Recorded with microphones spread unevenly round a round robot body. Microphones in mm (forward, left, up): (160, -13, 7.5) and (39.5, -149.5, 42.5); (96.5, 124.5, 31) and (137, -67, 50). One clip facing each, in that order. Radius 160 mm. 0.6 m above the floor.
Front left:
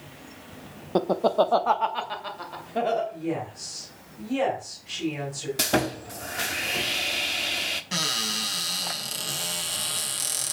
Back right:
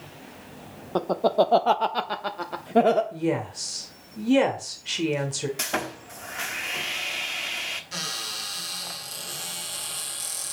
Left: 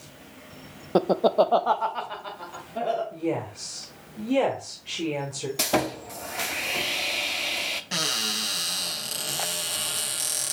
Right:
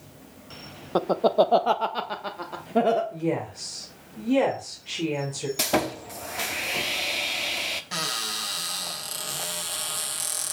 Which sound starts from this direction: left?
Laughter, at 0.9 s.